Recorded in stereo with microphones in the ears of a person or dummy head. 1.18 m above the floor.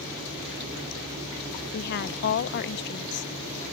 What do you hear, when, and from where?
1.7 s a woman speaking: 55° left (ahead or behind)